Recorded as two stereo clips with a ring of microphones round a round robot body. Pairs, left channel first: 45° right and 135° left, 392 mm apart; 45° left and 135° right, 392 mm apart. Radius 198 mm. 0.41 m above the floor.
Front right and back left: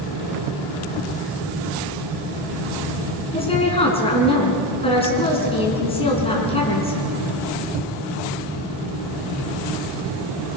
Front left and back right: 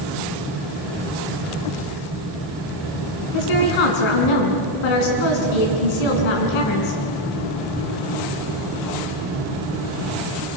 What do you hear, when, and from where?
3.3 s a woman speaking: 30° left, 5 m